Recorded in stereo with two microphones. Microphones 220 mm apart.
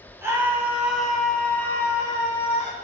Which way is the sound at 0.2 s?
15° right (ahead or behind).